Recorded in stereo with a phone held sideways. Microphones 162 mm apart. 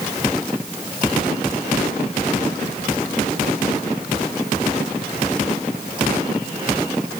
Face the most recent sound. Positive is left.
No sound to turn to.